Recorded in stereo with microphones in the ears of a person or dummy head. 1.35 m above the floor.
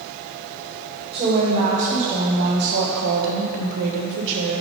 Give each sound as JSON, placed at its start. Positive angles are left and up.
{"t": 1.1, "sound": "a woman speaking", "side_deg": -35, "distance_m": 1.7}